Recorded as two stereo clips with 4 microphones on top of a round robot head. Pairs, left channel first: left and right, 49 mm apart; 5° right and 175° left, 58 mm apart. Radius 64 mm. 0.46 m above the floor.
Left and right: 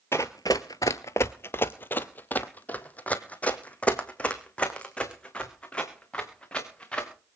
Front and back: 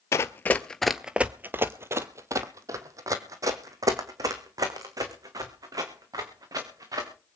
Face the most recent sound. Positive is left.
turn(degrees=160)